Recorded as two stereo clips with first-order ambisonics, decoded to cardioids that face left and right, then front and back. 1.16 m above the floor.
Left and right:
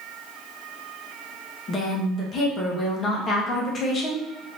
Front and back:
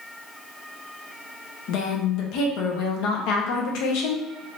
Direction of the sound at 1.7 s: 25° left.